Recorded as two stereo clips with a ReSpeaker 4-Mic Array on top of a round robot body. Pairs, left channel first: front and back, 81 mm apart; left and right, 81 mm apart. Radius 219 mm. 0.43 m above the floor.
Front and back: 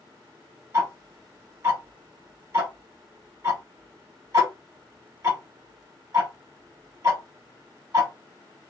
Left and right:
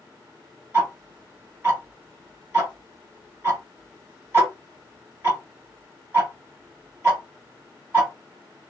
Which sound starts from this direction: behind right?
Ticking, at 0.7 s.